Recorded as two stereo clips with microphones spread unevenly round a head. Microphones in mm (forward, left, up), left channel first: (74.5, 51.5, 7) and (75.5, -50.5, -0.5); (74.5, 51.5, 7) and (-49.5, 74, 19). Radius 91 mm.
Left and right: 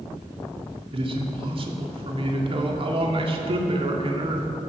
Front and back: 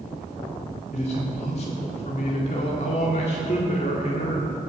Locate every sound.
0.9 s a man speaking: 60° right, 1.9 m